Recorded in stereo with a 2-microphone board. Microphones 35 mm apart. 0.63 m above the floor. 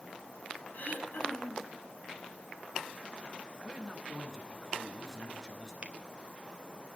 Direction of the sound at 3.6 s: 15° right (ahead or behind).